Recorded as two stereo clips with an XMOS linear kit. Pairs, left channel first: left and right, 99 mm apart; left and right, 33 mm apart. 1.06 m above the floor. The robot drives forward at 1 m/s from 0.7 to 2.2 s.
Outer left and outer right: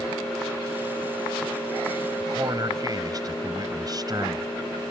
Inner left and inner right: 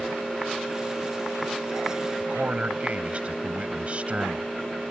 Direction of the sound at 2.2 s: 40° right (ahead or behind).